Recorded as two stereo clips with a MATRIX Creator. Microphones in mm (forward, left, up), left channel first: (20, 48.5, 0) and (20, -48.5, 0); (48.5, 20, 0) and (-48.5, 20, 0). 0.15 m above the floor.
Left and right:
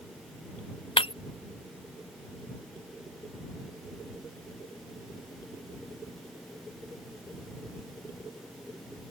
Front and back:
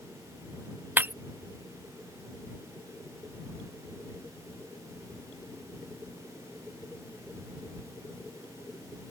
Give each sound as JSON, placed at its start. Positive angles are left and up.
{"t": 1.0, "sound": "breaking glass", "azimuth_deg": 110}